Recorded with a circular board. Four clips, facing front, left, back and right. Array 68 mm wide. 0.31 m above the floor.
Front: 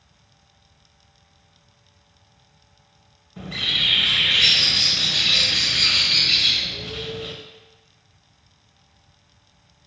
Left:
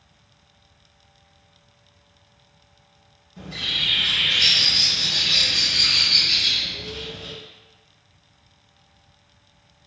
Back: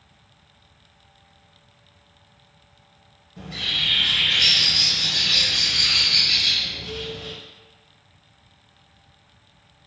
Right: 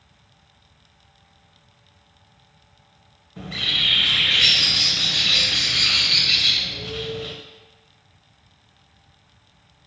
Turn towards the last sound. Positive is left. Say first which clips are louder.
# right 3 dB, front 2 dB
turn(degrees=-55)